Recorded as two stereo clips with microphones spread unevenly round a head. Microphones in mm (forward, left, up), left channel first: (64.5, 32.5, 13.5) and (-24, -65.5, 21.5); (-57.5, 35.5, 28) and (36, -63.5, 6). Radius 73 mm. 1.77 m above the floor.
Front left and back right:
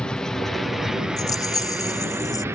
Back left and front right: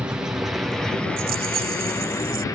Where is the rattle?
15° right.